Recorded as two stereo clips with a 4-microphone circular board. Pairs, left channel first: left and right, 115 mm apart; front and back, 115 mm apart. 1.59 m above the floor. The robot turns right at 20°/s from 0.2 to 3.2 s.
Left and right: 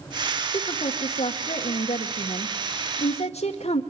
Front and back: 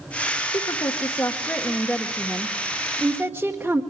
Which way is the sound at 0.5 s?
50° left.